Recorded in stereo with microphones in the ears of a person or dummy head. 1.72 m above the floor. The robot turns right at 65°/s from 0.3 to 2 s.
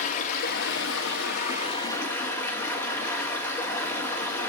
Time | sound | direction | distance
0.0 | running water | 50° left | 2 m